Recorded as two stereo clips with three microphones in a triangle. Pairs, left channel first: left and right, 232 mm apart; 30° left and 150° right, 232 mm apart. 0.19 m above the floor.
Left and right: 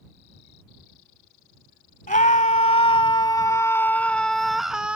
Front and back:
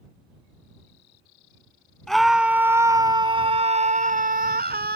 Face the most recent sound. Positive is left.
turn(degrees=-175)